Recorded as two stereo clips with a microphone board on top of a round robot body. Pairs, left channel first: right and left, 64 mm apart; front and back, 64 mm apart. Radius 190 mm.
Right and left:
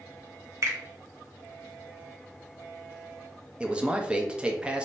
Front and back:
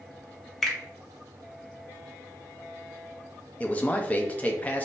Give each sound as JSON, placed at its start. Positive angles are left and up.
{"t": 0.6, "sound": "a finger snap", "azimuth_deg": 85, "distance_m": 1.0}
{"t": 3.6, "sound": "a man speaking", "azimuth_deg": 35, "distance_m": 0.7}